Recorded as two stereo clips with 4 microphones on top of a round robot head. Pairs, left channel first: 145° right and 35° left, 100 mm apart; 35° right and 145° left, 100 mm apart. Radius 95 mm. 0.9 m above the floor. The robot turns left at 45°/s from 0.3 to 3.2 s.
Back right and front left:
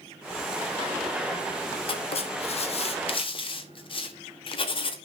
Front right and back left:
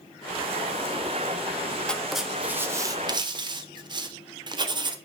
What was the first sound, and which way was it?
Writing, 115° right.